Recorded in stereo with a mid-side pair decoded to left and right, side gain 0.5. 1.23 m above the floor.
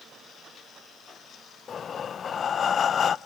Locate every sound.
1.7 s breathing: 45° left, 0.7 m